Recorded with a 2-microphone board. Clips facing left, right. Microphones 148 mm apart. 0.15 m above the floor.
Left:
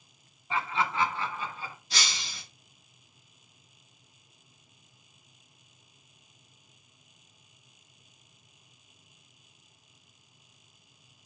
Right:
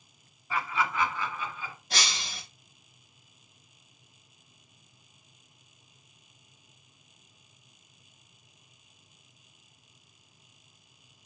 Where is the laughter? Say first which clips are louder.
Even; 25° left (ahead or behind), 1.8 m; by 1.8 s 35° left (ahead or behind), 2.5 m.